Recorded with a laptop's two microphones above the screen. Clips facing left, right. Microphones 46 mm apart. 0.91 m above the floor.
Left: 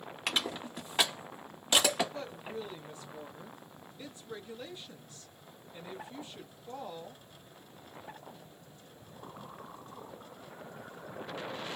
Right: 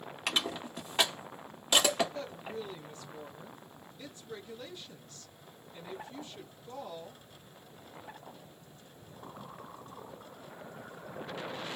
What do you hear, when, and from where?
0.3 s crushing: 5° left (ahead or behind), 1.2 m
2.1 s a woman speaking: 15° left (ahead or behind), 0.7 m